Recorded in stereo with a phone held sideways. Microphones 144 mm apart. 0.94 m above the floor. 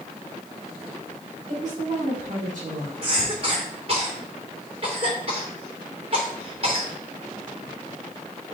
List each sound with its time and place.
1.5 s a woman speaking: 55° right (ahead or behind), 3 m; by 2.9 s 65° right (ahead or behind), 2.5 m
3.0 s a cough: 40° right (ahead or behind), 3 m